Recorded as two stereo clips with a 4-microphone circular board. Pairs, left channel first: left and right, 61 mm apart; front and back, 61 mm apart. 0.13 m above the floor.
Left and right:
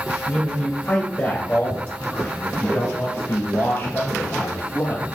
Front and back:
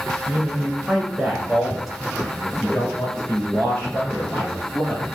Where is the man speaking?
135° left, 1.7 m; by 5.1 s 70° left, 3.5 m.